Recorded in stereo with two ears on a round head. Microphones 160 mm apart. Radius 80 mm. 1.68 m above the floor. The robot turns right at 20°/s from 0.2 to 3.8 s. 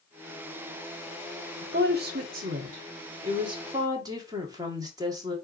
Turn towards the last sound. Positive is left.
turn(degrees=-20)